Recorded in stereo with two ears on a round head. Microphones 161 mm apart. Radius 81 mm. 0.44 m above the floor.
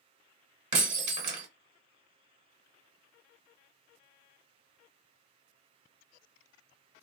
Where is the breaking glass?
35° right (ahead or behind), 1.2 m.